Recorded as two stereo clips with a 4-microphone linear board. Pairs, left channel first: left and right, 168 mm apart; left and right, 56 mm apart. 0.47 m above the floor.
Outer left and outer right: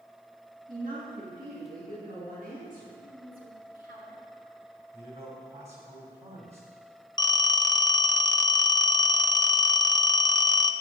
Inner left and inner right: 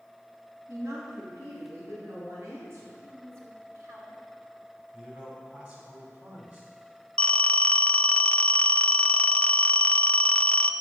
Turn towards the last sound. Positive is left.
turn(degrees=25)  # may be behind; listen again after turning